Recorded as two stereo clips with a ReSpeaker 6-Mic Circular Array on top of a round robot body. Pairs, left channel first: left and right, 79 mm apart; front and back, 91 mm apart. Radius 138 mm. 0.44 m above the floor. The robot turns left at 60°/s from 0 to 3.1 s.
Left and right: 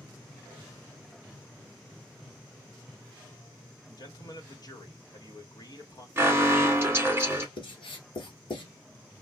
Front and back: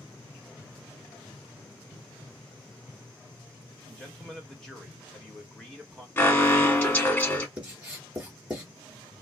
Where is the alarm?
50° right, 1.7 m.